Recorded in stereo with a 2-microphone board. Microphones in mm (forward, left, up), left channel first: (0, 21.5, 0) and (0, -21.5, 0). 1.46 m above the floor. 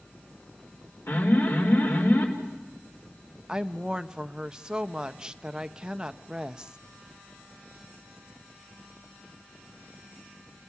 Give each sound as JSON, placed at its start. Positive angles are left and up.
{"t": 1.1, "sound": "an alarm", "side_deg": 75, "distance_m": 4.0}
{"t": 3.5, "sound": "a woman speaking", "side_deg": -20, "distance_m": 0.7}